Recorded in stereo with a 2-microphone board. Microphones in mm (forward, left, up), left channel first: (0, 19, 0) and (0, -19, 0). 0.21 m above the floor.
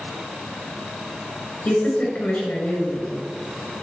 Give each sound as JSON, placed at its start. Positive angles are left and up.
{"t": 1.6, "sound": "a woman speaking", "side_deg": 40, "distance_m": 3.0}